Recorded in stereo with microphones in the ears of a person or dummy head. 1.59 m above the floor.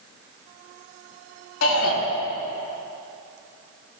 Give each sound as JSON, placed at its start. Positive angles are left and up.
{"t": 1.6, "sound": "a shout", "side_deg": 85, "distance_m": 4.0}